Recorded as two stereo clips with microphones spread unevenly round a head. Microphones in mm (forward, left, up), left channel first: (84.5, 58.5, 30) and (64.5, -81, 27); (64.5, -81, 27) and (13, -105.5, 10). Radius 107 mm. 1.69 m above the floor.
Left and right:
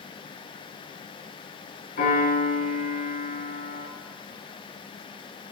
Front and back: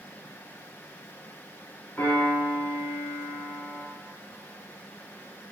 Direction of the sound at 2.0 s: 110° left.